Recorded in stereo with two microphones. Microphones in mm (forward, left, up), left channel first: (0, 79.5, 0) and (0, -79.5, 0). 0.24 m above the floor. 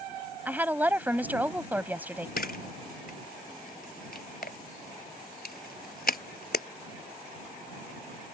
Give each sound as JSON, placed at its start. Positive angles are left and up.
{"t": 0.5, "sound": "a woman speaking", "side_deg": -10}
{"t": 2.4, "sound": "a camera shutter", "side_deg": 70}